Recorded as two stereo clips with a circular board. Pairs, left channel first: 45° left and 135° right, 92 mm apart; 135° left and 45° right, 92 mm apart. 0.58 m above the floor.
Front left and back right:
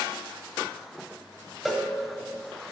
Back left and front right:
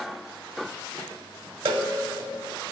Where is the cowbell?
45° right, 1.1 m.